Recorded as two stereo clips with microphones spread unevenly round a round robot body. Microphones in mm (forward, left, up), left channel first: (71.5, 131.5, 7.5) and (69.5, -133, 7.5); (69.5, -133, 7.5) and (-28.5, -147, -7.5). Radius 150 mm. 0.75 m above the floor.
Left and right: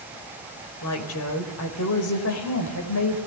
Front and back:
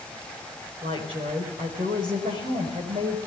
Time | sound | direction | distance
0.8 | a woman speaking | 135° left | 4 m